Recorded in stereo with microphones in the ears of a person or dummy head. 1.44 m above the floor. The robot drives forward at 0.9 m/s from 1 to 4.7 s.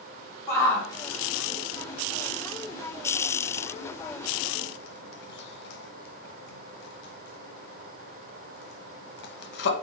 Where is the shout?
15° left (ahead or behind), 4 m; by 9.7 s 65° left (ahead or behind), 1.1 m.